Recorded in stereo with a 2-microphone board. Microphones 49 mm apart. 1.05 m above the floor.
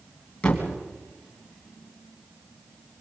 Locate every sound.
0.4 s a thud: 20° left (ahead or behind), 2.5 m